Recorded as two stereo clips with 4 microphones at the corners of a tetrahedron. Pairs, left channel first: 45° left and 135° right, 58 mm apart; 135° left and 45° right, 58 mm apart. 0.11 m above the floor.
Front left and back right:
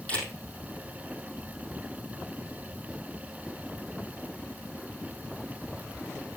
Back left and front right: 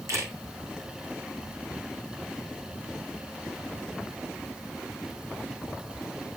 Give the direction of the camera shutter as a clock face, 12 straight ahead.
1 o'clock.